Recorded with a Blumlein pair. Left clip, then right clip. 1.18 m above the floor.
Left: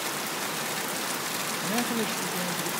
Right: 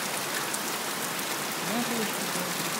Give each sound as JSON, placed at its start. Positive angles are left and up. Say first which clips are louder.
{"t": 1.6, "sound": "a man speaking", "louder": "left 1 dB", "azimuth_deg": 5, "distance_m": 1.5}